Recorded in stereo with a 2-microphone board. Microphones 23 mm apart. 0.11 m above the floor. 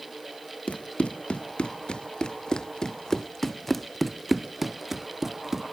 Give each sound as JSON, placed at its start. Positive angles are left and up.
{"t": 0.7, "sound": "running footsteps", "side_deg": 70}